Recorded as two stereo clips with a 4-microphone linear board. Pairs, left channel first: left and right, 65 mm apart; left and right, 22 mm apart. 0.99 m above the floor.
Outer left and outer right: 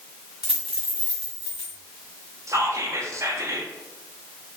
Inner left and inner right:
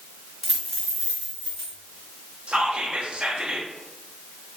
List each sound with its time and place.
0.4 s a dropped coin: 10° right (ahead or behind), 1.4 m
2.5 s whispering: 45° right (ahead or behind), 0.6 m